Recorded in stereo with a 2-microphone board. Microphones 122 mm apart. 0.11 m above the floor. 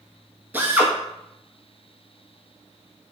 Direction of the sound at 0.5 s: 15° right (ahead or behind).